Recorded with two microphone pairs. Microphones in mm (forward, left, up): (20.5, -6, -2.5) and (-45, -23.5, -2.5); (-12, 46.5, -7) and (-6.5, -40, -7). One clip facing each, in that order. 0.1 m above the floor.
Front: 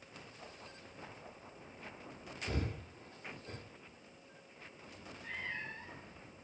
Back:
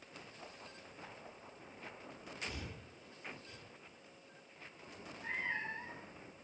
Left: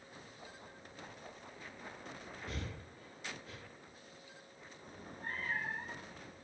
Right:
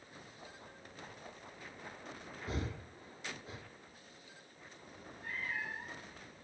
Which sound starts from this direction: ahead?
Breathing, at 2.5 s.